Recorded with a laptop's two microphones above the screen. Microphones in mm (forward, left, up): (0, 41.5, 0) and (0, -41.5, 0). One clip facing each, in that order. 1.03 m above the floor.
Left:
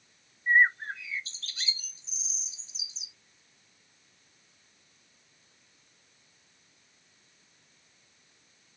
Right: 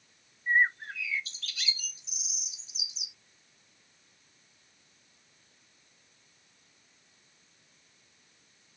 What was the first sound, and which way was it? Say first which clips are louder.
A bird: left 3 dB; 30° left (ahead or behind).